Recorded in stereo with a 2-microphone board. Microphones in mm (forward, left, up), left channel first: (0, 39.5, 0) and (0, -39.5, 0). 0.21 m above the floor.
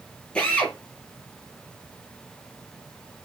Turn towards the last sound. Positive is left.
turn(degrees=10)  # may be behind; listen again after turning